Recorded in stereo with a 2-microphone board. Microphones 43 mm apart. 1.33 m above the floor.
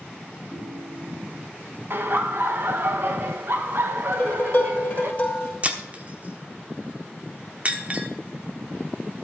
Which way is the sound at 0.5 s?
50° right (ahead or behind).